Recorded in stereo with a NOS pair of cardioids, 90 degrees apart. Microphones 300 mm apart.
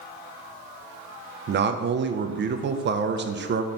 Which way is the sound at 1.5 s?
35° right.